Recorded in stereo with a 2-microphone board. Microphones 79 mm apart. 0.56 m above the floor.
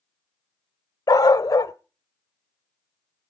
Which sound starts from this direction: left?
A dog barking, at 1.1 s.